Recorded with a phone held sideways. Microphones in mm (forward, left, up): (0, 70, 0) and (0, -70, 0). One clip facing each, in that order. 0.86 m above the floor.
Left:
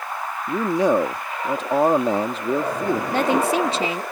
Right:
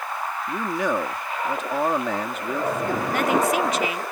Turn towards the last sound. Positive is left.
turn(degrees=30)  # may be behind; listen again after turning